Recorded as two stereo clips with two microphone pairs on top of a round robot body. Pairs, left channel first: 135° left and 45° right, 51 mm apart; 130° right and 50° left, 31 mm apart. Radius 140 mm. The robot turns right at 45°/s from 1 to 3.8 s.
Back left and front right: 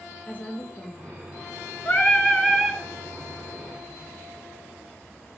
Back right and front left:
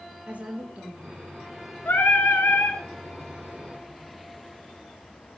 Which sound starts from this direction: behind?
Singing, at 1.9 s.